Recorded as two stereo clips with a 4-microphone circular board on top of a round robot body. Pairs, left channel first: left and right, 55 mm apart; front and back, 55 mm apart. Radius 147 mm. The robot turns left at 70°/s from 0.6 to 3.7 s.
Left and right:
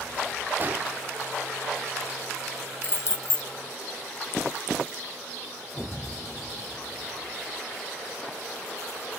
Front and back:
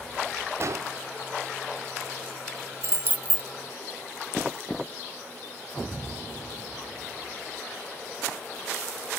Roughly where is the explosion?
Behind right.